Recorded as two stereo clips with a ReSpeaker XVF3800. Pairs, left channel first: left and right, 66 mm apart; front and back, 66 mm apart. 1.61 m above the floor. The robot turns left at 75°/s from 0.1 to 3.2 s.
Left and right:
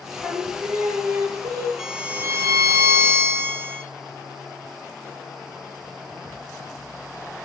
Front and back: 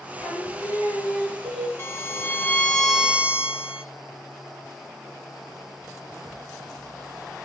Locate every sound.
0.2 s singing: 10° left, 1.4 m; by 1.7 s 105° right, 1.4 m
1.8 s a violin: 5° right, 0.8 m; by 3.8 s 115° right, 0.8 m